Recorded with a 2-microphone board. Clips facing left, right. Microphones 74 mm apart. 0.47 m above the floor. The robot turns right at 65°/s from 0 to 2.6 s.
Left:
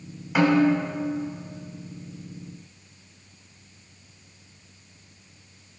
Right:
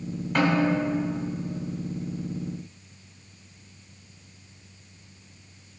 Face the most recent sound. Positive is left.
turn(degrees=155)